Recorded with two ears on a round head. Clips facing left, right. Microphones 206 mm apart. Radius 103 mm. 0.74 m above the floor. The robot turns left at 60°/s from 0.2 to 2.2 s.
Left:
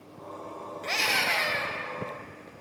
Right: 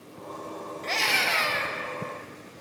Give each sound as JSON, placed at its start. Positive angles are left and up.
{"t": 0.8, "sound": "a scream", "azimuth_deg": 25, "distance_m": 0.8}